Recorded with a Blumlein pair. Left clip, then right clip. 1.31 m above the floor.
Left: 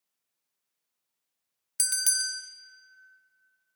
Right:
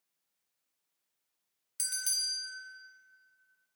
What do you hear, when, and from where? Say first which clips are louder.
1.8 s a bell: left 5 dB; 25° left, 0.5 m